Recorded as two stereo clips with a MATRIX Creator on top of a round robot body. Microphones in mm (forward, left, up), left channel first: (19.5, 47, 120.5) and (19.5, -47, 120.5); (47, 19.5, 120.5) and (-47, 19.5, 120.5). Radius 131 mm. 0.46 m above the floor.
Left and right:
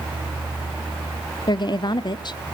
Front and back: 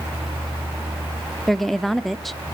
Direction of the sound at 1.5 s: 85° left.